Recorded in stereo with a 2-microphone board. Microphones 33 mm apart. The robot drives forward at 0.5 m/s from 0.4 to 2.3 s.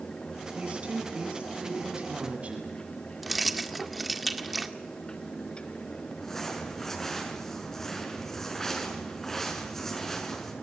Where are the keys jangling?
Centre (ahead or behind), 1.7 m.